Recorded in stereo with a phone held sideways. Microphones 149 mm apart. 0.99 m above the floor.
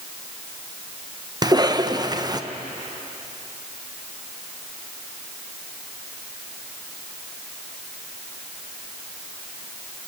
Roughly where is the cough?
Right.